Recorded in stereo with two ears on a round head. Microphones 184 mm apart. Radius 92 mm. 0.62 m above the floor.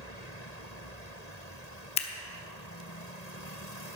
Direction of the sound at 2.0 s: 30° left (ahead or behind).